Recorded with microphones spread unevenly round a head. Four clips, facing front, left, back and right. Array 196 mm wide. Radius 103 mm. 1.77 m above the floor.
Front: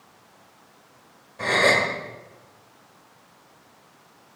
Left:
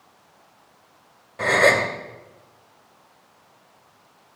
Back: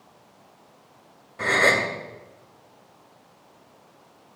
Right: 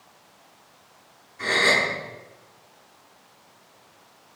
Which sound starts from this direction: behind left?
A gasp, at 1.4 s.